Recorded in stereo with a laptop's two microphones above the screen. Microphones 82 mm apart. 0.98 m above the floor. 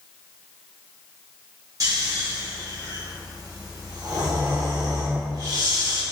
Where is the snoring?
50° right (ahead or behind), 0.9 m.